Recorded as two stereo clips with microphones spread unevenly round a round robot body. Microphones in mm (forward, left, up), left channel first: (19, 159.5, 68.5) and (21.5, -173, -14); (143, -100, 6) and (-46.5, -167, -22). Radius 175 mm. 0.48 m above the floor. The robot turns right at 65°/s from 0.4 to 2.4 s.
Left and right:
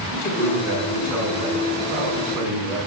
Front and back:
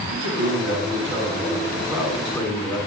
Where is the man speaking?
175° left, 5 m; by 2.8 s 55° right, 5 m.